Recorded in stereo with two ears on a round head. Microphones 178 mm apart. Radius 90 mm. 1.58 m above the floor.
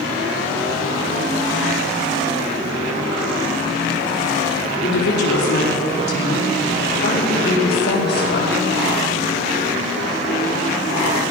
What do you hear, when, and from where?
4.8 s a woman speaking: 55° left (ahead or behind), 4 m; by 8.6 s 60° left (ahead or behind), 7 m